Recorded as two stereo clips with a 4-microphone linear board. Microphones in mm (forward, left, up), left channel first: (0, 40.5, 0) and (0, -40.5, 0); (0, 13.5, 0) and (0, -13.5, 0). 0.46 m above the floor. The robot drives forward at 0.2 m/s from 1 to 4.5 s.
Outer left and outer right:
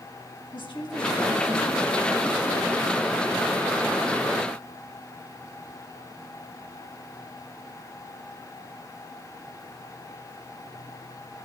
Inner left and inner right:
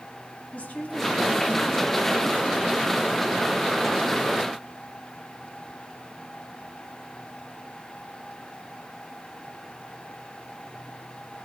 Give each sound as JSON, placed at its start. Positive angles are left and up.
{"t": 0.5, "sound": "a woman speaking", "side_deg": 70, "distance_m": 4.0}